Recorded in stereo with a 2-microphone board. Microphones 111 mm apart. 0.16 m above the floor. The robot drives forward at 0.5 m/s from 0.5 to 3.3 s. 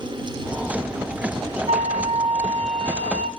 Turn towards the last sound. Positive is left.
turn(degrees=-65)  # may be behind; listen again after turning